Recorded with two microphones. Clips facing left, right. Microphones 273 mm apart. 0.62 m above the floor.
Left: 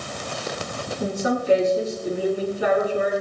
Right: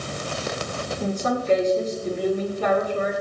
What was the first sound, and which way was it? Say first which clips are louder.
A woman speaking: left 2 dB; 10° left (ahead or behind).